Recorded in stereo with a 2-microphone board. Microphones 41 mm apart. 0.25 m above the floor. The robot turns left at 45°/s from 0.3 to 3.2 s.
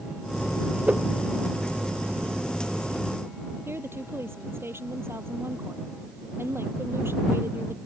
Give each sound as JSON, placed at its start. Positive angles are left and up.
{"t": 0.9, "sound": "a whoosh", "side_deg": -35}
{"t": 3.6, "sound": "a woman speaking", "side_deg": -80}